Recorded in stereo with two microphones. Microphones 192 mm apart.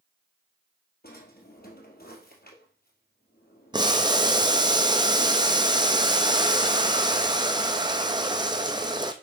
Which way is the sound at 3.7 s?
25° right (ahead or behind).